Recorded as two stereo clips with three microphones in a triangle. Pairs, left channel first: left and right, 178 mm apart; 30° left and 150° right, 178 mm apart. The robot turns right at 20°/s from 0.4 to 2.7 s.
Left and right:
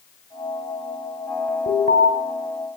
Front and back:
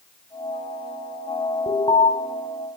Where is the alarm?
85° left, 4 m; by 2.1 s 95° left, 4 m.